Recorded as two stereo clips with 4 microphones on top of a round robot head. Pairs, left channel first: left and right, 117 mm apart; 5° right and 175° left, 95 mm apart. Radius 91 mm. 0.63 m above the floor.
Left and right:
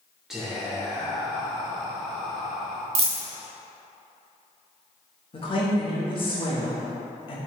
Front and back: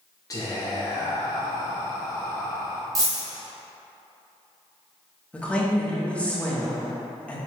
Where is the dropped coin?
125° right, 0.9 m.